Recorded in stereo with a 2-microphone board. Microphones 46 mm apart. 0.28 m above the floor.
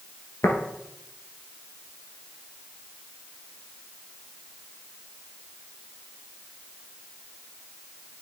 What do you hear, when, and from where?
0.4 s tapping: 80° left, 1.4 m